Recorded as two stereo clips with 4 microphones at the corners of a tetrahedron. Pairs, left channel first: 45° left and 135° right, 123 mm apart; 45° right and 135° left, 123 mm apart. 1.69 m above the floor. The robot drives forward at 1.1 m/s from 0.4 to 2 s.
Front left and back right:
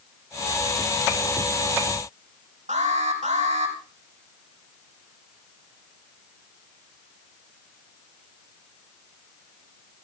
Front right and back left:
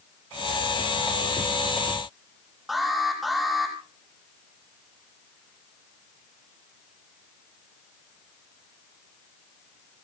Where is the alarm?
135° right, 6.5 m.